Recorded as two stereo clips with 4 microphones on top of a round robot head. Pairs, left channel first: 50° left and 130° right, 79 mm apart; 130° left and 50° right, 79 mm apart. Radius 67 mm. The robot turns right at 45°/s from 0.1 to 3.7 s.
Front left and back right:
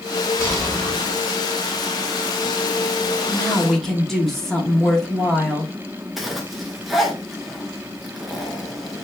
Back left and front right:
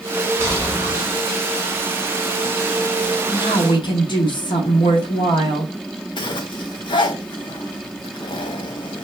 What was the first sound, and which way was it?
A gunshot, 5° right.